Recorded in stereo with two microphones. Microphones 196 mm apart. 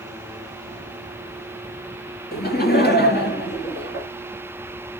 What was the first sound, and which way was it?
Laughter, 55° left (ahead or behind).